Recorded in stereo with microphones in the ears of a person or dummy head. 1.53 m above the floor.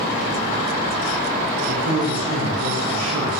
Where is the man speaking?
85° right, 2.5 m.